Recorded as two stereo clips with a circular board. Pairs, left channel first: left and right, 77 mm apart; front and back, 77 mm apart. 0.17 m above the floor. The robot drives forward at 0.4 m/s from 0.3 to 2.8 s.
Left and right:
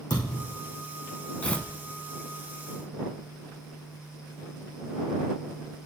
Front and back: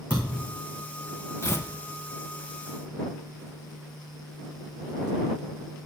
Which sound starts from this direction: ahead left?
Tearing paper, at 1.4 s.